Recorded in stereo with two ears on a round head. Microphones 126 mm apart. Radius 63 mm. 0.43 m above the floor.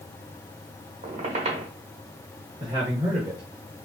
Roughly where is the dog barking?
I don't hear a dog barking.